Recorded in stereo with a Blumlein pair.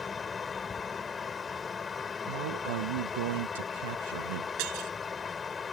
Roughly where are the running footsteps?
No running footsteps in this recording.